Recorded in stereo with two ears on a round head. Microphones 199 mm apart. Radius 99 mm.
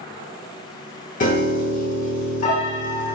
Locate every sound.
1.2 s a piano: 35° left (ahead or behind), 1.1 m